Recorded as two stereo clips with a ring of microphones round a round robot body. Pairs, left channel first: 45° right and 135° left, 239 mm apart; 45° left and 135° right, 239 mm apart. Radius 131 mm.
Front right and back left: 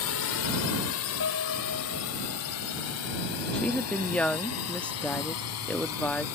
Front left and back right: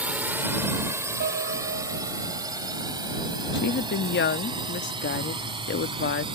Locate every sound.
0.0 s a drone: 50° right; by 6.4 s 65° right
1.2 s a piano: 85° right
3.5 s a woman speaking: 40° left